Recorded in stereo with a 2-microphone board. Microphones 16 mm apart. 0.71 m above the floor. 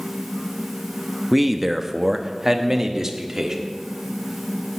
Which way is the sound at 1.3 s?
5° right (ahead or behind).